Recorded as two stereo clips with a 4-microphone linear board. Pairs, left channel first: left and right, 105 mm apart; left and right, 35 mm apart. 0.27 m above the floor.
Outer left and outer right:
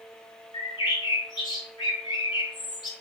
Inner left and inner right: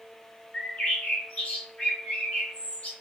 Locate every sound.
0.5 s a bird: 45° left (ahead or behind), 1.0 m